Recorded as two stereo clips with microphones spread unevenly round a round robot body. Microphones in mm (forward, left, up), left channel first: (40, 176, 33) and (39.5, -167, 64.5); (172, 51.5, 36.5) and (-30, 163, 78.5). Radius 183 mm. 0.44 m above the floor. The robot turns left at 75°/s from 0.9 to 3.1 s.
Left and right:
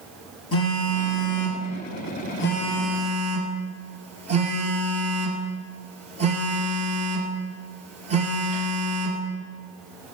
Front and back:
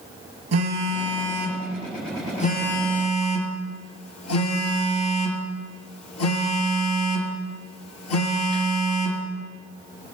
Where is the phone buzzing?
145° left, 2.5 m; by 9.2 s 20° right, 2.5 m.